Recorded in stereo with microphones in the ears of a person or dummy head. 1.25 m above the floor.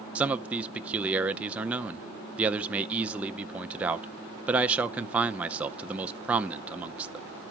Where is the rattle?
I don't hear a rattle.